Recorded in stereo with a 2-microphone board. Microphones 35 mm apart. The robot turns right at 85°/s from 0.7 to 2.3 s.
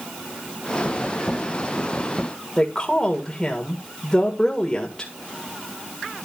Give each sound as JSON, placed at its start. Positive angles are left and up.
{"t": 2.6, "sound": "a woman speaking", "side_deg": 20, "distance_m": 1.8}